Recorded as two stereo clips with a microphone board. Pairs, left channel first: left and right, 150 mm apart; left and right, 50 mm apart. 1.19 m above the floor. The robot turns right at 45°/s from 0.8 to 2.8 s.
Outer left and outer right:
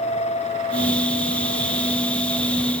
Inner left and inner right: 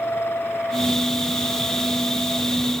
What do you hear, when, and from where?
Only background noise.